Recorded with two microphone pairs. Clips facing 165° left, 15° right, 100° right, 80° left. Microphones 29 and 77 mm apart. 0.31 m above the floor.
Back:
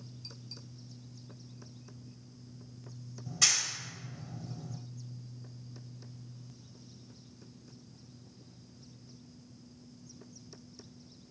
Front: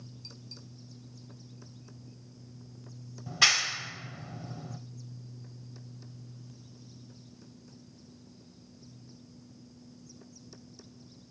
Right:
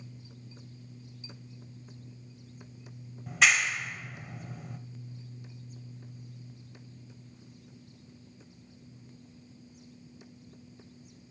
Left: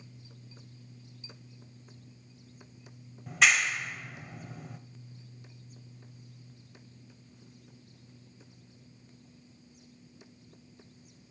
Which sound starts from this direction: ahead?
A clap, at 3.3 s.